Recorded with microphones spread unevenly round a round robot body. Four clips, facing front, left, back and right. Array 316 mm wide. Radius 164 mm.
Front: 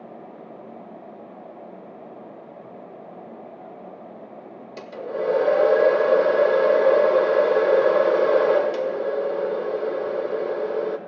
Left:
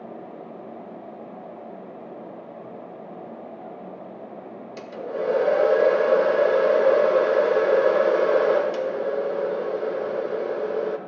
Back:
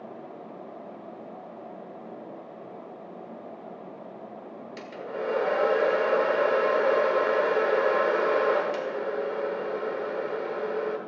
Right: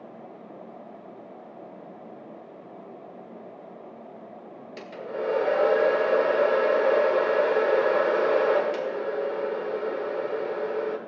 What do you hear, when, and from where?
4.8 s a hair dryer: 35° left, 1.3 m